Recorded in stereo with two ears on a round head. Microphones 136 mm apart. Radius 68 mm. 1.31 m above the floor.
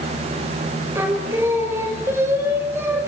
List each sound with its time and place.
0.9 s singing: 15° right (ahead or behind), 6 m